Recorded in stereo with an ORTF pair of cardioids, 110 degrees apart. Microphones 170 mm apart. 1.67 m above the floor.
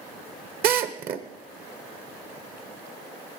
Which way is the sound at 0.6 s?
60° right.